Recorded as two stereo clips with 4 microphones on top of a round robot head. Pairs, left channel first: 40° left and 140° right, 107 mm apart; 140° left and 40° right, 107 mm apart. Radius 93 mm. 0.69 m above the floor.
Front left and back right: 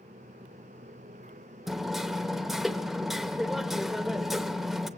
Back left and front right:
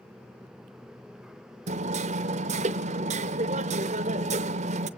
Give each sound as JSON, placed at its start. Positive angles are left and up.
{"t": 1.7, "sound": "hammering", "azimuth_deg": -50, "distance_m": 0.8}